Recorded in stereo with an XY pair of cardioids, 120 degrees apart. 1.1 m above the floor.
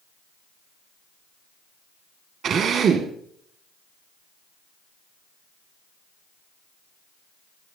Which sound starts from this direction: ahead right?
A drill, at 2.4 s.